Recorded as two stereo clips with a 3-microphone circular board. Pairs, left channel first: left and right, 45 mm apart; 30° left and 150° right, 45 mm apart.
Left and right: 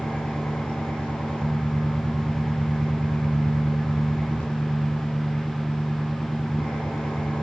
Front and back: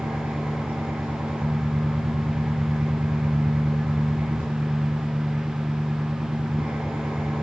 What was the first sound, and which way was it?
An engine running, 155° left.